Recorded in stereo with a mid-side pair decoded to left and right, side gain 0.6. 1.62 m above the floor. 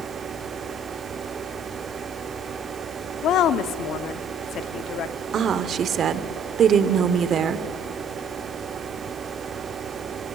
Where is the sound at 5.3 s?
40° right, 0.9 m.